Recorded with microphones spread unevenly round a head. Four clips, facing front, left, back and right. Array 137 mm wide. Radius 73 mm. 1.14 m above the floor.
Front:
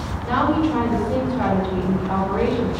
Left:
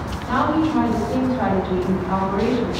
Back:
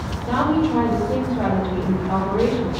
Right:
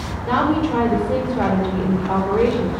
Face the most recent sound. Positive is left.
turn(degrees=-90)